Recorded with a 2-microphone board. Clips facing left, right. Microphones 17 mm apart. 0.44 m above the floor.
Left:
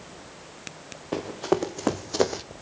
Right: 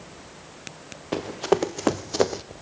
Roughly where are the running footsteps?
Right.